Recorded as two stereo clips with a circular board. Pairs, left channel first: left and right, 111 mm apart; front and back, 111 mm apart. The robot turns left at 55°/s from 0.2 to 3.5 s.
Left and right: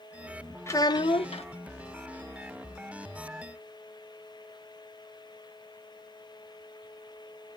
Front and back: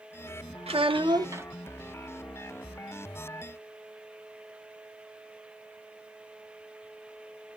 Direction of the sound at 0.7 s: 155° left.